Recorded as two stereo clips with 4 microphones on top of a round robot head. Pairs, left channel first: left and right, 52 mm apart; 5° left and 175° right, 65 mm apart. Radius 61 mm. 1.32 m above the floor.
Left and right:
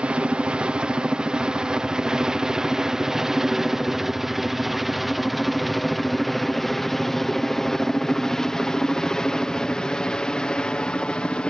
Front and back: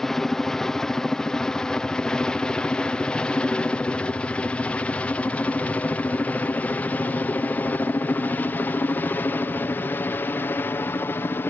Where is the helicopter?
70° right; by 11.5 s 30° left.